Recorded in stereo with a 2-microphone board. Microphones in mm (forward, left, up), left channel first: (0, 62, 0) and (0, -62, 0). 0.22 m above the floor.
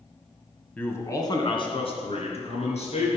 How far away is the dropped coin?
No dropped coin in this recording.